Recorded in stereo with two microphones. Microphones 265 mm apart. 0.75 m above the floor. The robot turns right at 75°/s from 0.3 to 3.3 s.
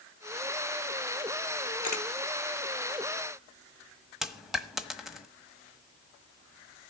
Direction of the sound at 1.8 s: 85° left.